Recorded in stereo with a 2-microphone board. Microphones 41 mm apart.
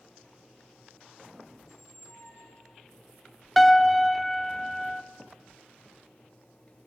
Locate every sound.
1.6 s a squeak: 85° left, 3 m
3.6 s a piano: 5° left (ahead or behind), 1.0 m